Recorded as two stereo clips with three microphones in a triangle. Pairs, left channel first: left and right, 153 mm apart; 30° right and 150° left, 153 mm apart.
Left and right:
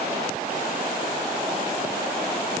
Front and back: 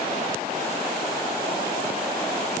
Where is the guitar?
I don't hear a guitar.